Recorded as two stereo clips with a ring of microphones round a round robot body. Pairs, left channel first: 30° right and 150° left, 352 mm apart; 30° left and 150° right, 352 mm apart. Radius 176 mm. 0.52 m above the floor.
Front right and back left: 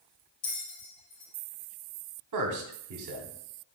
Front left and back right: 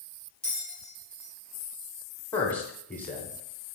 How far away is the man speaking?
About 1.4 m.